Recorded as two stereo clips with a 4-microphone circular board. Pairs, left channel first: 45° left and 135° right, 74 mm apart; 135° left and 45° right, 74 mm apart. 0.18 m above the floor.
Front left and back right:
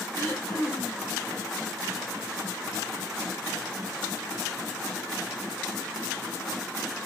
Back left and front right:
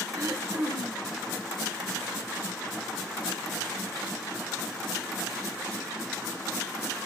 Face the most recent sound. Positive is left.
turn(degrees=-10)